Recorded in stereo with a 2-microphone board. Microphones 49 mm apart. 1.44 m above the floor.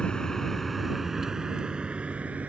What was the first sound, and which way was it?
A vehicle, 20° left (ahead or behind).